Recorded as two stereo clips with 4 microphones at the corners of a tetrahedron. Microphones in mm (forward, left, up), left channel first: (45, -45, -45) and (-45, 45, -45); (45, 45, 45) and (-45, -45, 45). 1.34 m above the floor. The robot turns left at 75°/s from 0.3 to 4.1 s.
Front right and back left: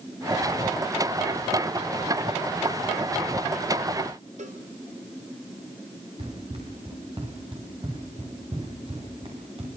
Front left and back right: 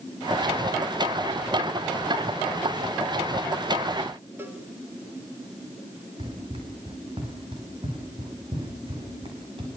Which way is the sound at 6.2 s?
Straight behind.